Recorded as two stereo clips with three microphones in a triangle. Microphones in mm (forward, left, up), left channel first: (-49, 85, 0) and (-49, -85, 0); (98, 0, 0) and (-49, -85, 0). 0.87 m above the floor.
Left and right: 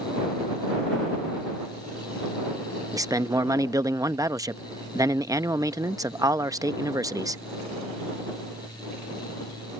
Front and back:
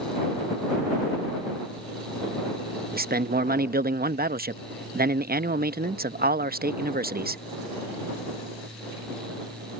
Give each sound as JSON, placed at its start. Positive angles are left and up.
{"t": 2.9, "sound": "a man speaking", "azimuth_deg": -160}